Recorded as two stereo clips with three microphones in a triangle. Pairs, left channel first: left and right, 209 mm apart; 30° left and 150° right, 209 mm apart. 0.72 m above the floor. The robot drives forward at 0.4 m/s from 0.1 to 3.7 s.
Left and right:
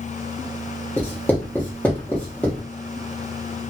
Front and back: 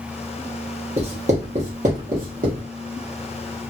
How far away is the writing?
About 1.4 m.